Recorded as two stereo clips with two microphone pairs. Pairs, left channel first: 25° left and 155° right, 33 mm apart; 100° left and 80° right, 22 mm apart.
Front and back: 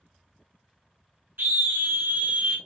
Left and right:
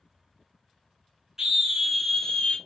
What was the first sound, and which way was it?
A scream, 150° right.